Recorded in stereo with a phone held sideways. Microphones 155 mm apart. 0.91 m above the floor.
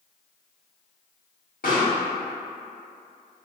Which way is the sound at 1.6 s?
70° left (ahead or behind).